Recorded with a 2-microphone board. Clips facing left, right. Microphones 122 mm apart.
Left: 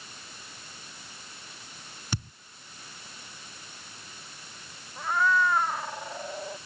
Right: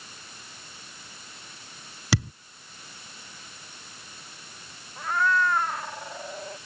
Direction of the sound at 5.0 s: 5° left (ahead or behind).